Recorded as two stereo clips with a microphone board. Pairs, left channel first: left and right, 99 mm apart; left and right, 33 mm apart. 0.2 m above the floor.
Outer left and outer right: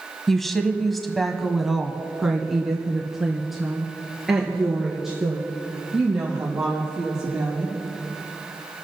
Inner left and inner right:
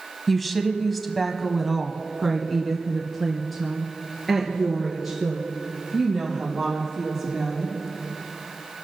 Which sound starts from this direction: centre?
A woman speaking, at 0.3 s.